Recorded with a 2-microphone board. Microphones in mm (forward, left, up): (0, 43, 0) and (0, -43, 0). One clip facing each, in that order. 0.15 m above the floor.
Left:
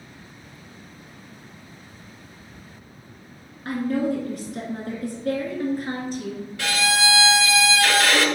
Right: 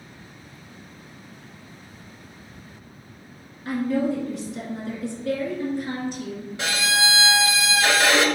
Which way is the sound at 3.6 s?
50° left (ahead or behind).